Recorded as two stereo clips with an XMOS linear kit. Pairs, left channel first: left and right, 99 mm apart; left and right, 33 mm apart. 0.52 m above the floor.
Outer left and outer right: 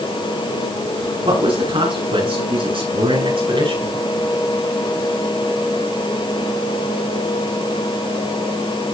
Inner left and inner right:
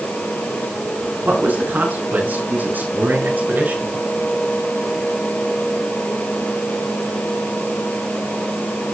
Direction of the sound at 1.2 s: 70° right (ahead or behind).